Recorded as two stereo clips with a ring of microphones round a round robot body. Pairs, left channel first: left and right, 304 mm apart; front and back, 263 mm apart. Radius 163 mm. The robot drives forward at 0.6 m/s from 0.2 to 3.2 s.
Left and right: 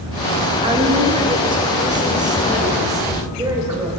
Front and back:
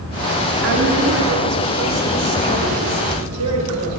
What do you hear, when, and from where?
0.6 s a woman speaking: 155° right, 1.9 m; by 3.9 s 170° right, 3 m